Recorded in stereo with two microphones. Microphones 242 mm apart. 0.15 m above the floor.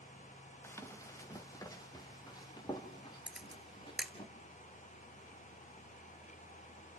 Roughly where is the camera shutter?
Centre.